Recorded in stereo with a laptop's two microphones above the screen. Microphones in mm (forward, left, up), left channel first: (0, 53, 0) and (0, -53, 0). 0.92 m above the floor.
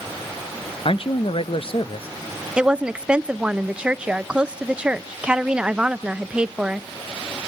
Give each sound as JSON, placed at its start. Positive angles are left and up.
{"t": 0.8, "sound": "a man speaking", "side_deg": 55, "distance_m": 0.5}
{"t": 2.6, "sound": "a woman speaking", "side_deg": -10, "distance_m": 0.6}